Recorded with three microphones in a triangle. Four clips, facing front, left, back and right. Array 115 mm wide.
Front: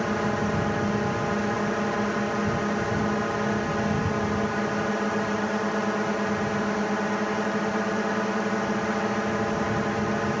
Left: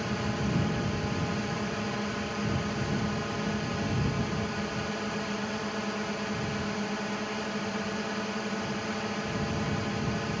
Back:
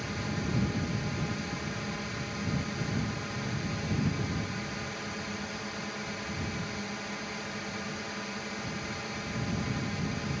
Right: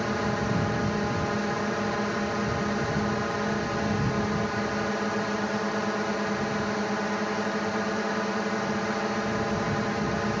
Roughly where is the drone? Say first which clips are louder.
Right 4 dB, front 10 dB; ahead right.